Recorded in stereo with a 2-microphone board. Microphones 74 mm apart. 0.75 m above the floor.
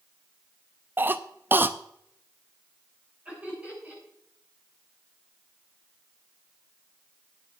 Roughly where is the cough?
Right.